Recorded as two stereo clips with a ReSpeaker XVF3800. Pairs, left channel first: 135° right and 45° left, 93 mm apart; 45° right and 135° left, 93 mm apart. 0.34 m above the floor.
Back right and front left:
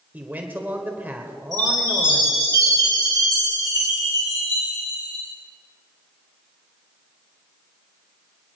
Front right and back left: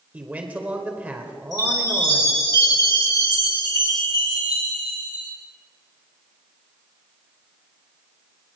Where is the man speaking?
85° left, 1.4 m.